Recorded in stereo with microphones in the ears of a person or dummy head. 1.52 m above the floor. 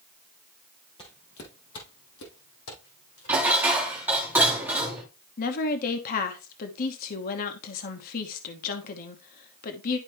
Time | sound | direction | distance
1.0 | footsteps | 25° left (ahead or behind) | 1.8 m
3.3 | dishes clattering | 5° right (ahead or behind) | 2 m
5.4 | a woman speaking | 45° left (ahead or behind) | 1.0 m